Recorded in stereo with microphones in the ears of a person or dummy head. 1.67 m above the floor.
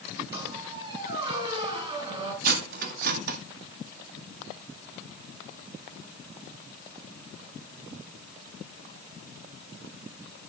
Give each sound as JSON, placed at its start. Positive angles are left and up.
{"t": 0.3, "sound": "a squeak", "side_deg": -30, "distance_m": 4.0}
{"t": 2.4, "sound": "cutlery clinking", "side_deg": -55, "distance_m": 2.0}